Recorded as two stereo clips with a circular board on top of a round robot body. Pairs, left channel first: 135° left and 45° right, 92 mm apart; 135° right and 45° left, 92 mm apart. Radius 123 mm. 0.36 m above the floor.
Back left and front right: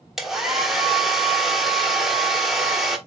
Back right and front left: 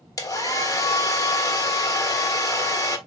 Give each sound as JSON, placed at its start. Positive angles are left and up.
{"t": 0.2, "sound": "a hair dryer", "azimuth_deg": -130, "distance_m": 1.4}